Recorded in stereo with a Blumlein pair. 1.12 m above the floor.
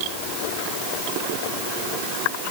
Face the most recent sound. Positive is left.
No sound to turn to.